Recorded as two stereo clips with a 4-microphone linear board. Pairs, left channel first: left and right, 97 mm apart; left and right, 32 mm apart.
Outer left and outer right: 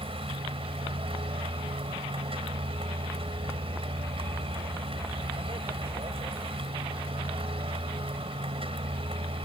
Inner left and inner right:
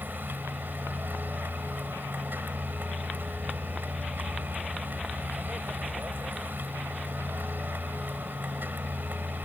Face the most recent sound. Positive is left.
turn(degrees=-75)  # may be behind; listen again after turning